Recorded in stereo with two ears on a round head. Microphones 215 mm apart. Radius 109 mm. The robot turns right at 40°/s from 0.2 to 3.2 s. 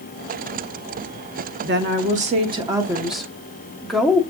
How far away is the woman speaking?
About 0.8 m.